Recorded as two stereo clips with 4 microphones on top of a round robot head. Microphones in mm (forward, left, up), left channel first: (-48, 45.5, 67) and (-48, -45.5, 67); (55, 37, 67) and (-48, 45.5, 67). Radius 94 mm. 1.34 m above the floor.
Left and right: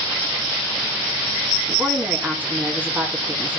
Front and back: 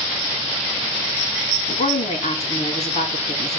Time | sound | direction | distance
1.7 | a woman speaking | 15° right | 3 m